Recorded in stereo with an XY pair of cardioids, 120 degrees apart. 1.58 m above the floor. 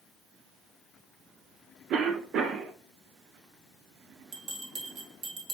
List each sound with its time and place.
1.9 s a cough: 60° right, 1.1 m
4.3 s a bell: 65° right, 1.4 m